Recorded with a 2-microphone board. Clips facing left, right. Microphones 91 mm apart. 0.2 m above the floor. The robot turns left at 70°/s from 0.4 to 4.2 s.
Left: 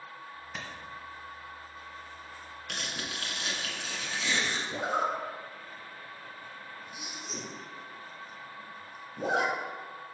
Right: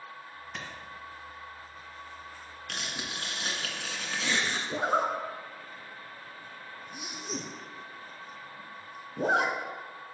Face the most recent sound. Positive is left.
turn(degrees=-50)  # may be behind; listen again after turning